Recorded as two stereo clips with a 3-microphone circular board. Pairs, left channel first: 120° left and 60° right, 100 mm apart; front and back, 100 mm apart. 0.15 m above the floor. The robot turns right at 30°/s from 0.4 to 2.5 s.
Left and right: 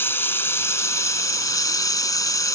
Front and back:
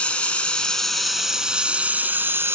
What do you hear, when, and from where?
0.0 s running water: 70° left, 1.2 m; by 2.6 s 135° left, 1.2 m